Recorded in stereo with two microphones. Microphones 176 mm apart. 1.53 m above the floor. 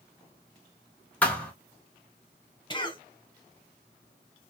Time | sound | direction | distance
1.2 | a thud | 10° left (ahead or behind) | 0.8 m
2.7 | a cough | 25° left (ahead or behind) | 1.1 m